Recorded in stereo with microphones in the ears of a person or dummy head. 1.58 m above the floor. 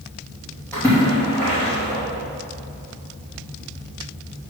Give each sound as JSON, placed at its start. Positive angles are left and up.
{"t": 0.7, "sound": "a splash", "side_deg": 10, "distance_m": 3.0}